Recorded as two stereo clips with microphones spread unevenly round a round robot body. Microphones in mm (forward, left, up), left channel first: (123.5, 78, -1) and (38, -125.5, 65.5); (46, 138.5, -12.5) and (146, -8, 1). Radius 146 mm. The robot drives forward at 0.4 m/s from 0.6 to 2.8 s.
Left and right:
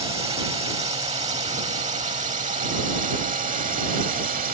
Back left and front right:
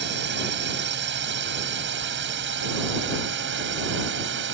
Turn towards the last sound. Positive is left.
turn(degrees=-55)